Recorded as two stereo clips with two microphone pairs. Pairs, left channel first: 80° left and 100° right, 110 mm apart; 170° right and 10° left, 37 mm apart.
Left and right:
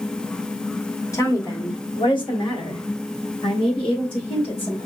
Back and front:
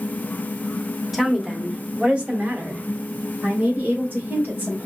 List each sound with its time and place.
1.1 s a woman speaking: 95° left, 1.3 m; by 4.9 s 45° left, 3.5 m